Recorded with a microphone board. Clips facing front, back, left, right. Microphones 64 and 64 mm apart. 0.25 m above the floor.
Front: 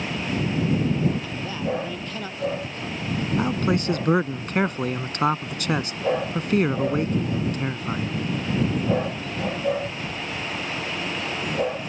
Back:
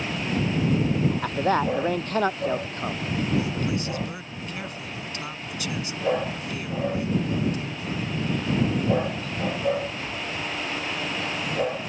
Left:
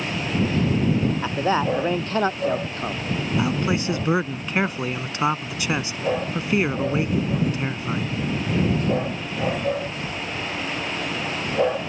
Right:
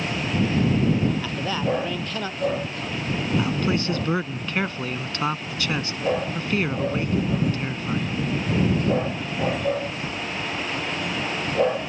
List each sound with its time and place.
1.2 s a man speaking: 145° left; by 3.0 s 135° left
3.4 s a man speaking: 20° left